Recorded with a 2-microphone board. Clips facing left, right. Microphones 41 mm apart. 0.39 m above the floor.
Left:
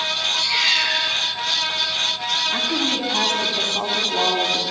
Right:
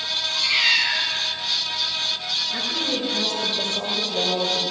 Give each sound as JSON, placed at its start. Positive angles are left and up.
{"t": 0.3, "sound": "a cat meowing", "side_deg": -10, "distance_m": 5.0}
{"t": 2.5, "sound": "a woman speaking", "side_deg": 65, "distance_m": 3.5}